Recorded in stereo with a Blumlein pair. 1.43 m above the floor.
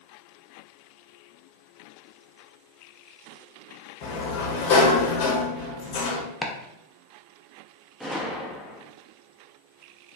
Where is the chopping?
10° left, 0.5 m.